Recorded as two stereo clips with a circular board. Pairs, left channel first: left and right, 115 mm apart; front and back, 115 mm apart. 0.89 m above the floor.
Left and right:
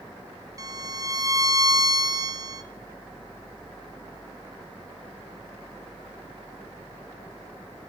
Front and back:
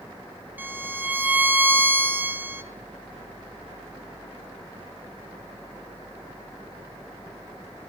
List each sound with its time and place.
0.6 s a violin: 115° right, 0.7 m